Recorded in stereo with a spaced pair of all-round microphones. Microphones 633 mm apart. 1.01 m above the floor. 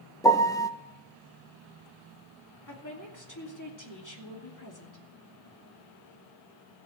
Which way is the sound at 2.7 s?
30° left (ahead or behind).